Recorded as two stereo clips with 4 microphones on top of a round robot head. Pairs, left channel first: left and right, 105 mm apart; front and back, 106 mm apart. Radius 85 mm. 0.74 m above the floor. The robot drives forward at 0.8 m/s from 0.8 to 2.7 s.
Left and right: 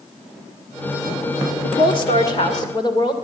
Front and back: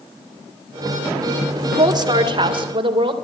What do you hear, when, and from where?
1.6 s a woman speaking: 130° left, 1.7 m; by 3.1 s 150° left, 2.5 m